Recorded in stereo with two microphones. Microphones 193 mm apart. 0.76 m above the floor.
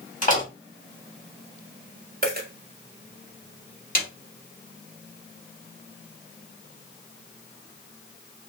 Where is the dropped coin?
50° right (ahead or behind), 1.5 m.